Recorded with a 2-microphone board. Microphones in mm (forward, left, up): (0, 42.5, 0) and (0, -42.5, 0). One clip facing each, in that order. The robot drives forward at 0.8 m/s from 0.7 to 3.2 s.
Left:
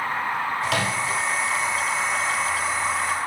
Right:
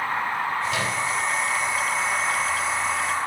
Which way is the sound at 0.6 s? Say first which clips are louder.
Left 1 dB; 80° left.